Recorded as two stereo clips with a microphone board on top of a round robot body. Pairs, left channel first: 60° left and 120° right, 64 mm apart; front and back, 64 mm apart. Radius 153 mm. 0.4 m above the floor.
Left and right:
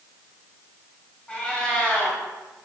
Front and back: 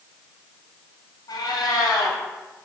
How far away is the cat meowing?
About 2.5 m.